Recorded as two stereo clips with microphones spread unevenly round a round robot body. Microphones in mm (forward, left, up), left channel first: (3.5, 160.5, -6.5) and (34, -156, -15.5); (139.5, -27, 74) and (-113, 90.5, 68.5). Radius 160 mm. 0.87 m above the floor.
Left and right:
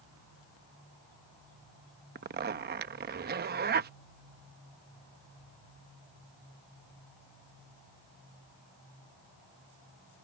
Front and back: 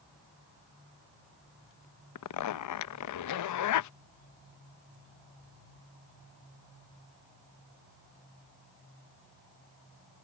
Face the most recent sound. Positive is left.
turn(degrees=-25)